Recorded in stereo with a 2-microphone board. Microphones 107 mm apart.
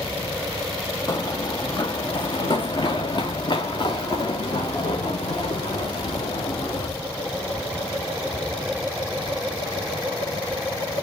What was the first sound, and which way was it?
Running footsteps, 35° left (ahead or behind).